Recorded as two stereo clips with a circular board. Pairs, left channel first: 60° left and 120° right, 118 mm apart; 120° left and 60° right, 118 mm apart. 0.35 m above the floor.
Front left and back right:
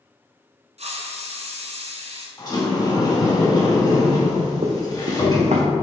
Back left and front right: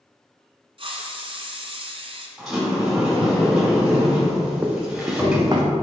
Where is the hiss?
100° right, 1.1 m.